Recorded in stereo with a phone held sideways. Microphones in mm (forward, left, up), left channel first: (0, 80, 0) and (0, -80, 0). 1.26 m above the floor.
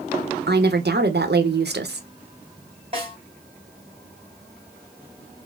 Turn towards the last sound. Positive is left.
turn(degrees=-35)  # may be behind; listen again after turning